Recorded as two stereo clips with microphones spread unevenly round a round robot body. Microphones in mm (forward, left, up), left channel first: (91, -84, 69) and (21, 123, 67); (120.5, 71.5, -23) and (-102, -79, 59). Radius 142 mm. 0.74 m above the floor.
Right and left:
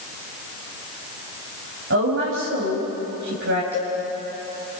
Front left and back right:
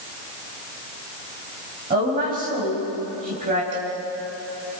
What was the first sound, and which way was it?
A woman speaking, 150° left.